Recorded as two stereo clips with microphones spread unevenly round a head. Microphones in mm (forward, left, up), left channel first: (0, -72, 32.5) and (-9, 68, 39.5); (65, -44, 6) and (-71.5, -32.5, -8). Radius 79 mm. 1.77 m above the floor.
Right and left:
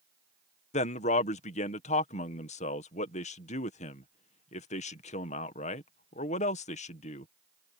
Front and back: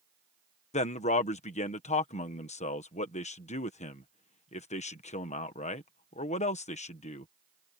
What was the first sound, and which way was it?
A man speaking, 45° right.